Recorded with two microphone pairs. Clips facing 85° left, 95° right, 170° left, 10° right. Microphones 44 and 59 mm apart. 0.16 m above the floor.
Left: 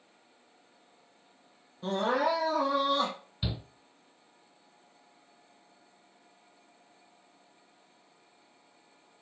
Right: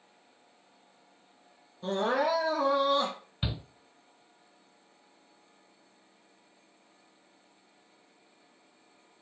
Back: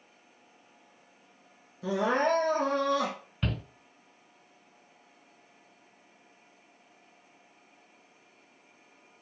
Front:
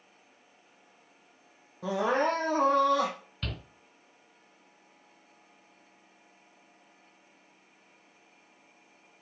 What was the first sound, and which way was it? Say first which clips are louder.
Crying: even, even; 5° left.